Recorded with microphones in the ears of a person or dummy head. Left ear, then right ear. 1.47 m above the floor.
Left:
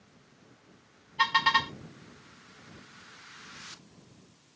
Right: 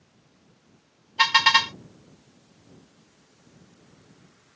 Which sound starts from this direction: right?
A car horn, at 1.2 s.